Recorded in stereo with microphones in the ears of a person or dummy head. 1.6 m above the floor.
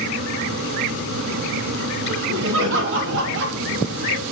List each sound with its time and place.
2.1 s laughter: 70° right (ahead or behind), 3.5 m